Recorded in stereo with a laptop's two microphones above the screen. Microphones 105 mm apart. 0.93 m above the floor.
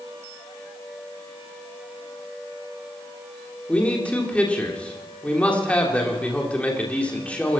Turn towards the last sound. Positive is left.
turn(degrees=15)  # may be behind; listen again after turning